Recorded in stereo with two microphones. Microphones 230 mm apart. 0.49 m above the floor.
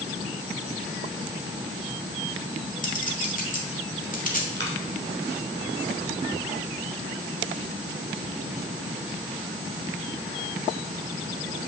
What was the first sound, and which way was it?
A clink, 35° left (ahead or behind).